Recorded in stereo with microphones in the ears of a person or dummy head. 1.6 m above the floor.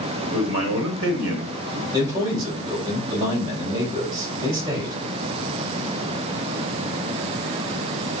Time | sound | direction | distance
0.3 | a man speaking | 65° right (ahead or behind) | 1.0 m
1.9 | a man speaking | 20° right (ahead or behind) | 2.5 m